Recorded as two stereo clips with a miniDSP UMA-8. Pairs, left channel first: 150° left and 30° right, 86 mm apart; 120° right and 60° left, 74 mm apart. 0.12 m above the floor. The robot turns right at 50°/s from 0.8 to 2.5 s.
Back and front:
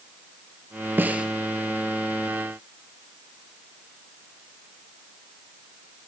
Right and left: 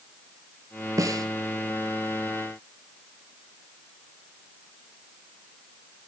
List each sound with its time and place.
1.0 s a snare drum: 35° left, 1.0 m; by 1.3 s 50° left, 1.0 m